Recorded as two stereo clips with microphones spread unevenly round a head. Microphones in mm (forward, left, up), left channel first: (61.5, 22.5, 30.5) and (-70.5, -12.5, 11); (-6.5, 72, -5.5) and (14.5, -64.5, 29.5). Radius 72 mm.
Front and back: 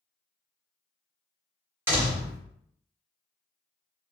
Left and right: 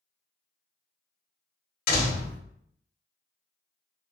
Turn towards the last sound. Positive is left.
turn(degrees=120)